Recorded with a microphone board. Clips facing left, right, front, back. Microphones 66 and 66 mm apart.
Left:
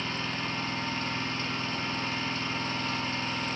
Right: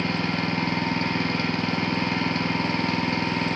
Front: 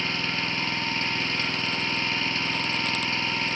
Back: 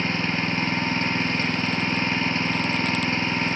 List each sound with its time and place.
0.0 s an engine running: 115° right, 0.9 m